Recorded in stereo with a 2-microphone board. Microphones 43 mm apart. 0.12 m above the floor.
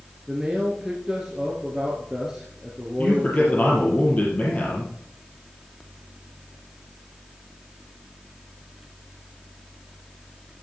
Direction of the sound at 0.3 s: 15° right (ahead or behind).